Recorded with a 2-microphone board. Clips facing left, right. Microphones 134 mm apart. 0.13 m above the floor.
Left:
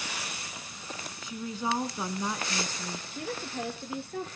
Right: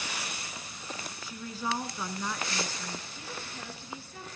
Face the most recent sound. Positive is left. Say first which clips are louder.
# left 7 dB
turn(degrees=60)  # may be behind; listen again after turning